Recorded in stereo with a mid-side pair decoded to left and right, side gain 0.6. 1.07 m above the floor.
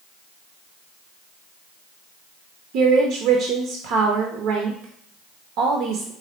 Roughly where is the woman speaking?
Ahead right.